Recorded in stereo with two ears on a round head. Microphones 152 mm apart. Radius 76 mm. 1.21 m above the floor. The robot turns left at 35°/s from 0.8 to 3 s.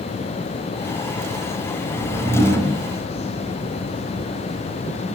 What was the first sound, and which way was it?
A whoosh, 50° left (ahead or behind).